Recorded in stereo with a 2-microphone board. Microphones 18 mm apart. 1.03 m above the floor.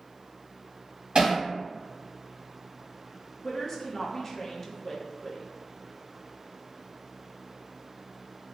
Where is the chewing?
I don't hear chewing.